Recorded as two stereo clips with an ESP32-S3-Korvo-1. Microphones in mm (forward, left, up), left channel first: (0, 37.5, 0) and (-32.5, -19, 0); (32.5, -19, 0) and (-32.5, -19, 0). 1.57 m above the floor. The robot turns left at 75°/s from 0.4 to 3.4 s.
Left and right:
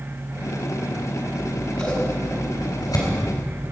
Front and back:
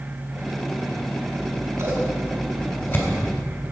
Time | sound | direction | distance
1.4 | scissors | straight behind | 3.5 m